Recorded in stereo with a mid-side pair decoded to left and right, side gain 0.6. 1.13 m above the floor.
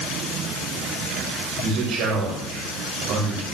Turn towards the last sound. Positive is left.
turn(degrees=-65)